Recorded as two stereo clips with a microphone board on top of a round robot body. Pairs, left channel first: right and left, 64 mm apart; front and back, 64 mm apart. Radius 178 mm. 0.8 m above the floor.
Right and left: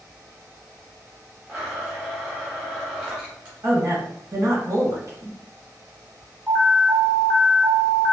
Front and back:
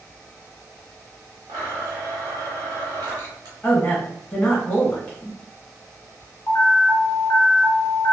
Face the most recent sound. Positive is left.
turn(degrees=-5)